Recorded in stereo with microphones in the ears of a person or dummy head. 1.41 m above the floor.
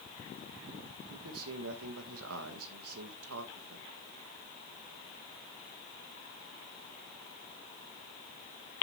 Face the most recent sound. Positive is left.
turn(degrees=-85)